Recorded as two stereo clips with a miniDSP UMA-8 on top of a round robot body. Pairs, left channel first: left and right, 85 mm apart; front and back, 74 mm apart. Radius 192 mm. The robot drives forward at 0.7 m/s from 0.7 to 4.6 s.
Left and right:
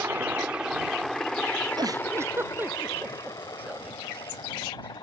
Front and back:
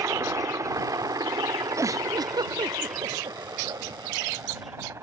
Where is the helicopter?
150° right; by 5.0 s 125° left.